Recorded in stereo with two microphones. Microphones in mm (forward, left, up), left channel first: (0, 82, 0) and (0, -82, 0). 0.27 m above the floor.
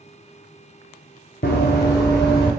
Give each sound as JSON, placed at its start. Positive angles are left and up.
{"t": 1.4, "sound": "running footsteps", "side_deg": 75, "distance_m": 0.8}